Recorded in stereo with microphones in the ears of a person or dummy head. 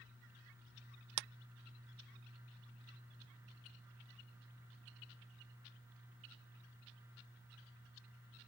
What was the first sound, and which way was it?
A clap, 55° right (ahead or behind).